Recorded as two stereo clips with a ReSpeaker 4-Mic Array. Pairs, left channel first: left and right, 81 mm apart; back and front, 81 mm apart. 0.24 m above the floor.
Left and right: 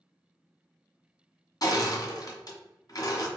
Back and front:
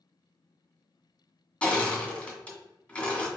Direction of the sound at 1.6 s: 105° left.